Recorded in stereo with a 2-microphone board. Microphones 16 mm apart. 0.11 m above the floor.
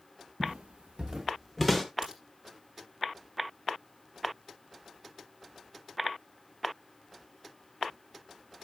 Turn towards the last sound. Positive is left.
turn(degrees=-40)  # may be behind; listen again after turning